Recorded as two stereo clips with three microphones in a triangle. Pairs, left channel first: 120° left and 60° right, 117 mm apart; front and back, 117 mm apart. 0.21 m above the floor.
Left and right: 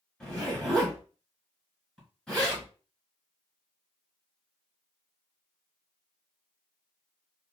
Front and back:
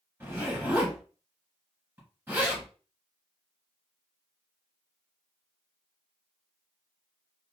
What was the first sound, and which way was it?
A zipper, 165° right.